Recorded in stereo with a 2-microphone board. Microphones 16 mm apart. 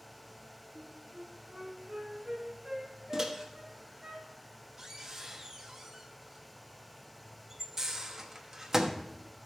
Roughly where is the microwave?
Right.